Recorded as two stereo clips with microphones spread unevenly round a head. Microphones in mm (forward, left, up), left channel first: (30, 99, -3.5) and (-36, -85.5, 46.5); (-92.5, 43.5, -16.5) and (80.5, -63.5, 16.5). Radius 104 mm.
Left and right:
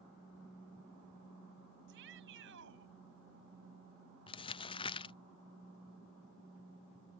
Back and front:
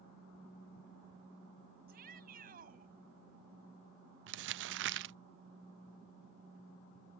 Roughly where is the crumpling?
Ahead.